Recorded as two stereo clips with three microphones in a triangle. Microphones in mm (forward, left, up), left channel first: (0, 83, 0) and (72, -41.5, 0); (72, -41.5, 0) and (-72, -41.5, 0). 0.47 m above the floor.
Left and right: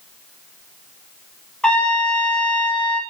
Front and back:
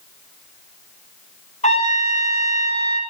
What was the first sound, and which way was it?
A trumpet, 35° left.